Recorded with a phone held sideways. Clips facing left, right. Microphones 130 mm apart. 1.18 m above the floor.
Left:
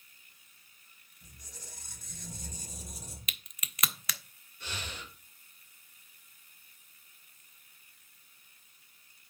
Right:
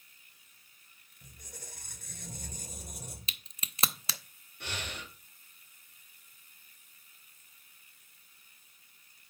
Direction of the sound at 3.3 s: 30° right (ahead or behind).